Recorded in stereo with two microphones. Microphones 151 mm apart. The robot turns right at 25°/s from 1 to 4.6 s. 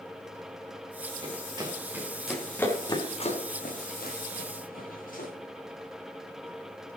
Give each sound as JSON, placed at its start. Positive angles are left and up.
{"t": 1.2, "sound": "running footsteps", "side_deg": -40, "distance_m": 4.0}